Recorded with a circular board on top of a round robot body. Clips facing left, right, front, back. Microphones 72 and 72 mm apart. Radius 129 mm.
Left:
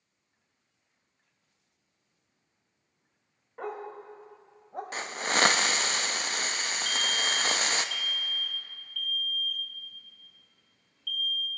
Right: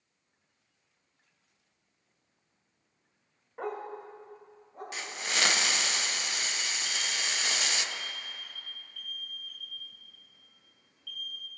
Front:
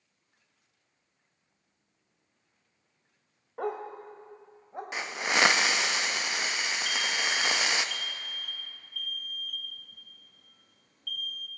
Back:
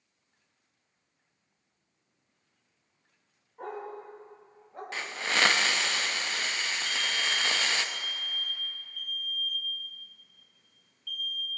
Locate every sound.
3.6 s a dog barking: 5° right, 0.9 m; by 4.8 s 70° left, 1.1 m
4.9 s a hiss: 70° left, 0.7 m
6.8 s an alarm: 25° right, 1.0 m